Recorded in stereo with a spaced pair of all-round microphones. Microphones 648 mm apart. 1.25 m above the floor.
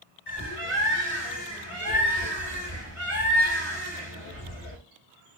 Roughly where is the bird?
Left.